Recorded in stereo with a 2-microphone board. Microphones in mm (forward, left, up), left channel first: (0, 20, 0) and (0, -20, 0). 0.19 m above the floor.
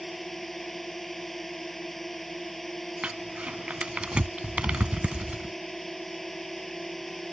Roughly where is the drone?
Centre.